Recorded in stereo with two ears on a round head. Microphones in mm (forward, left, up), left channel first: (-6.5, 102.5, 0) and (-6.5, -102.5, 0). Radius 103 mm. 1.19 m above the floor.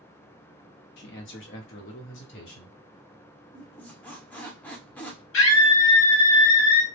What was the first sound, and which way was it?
A man speaking, 45° left (ahead or behind).